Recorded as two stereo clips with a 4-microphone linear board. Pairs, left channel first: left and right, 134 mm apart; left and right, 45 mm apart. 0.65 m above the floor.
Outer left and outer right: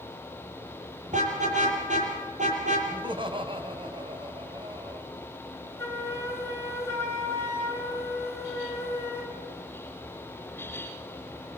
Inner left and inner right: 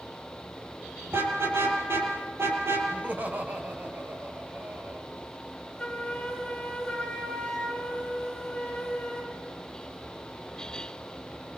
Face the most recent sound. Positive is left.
turn(degrees=20)  # may be behind; listen again after turning